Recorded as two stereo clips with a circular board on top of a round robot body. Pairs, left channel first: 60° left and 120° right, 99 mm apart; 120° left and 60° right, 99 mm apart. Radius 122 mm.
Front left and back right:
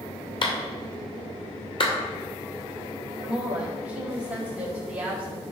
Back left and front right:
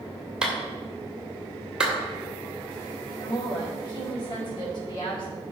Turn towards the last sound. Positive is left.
turn(degrees=160)